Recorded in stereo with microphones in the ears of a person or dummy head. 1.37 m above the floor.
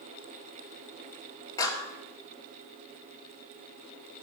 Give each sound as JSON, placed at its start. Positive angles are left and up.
{"t": 1.6, "sound": "a clap", "side_deg": 25, "distance_m": 2.0}